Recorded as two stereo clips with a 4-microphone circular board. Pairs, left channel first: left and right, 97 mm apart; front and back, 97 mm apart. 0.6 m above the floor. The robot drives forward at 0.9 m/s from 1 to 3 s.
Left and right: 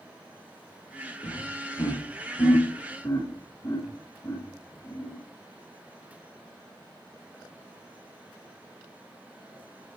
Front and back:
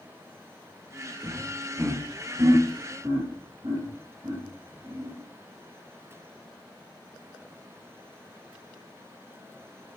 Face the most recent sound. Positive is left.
turn(degrees=140)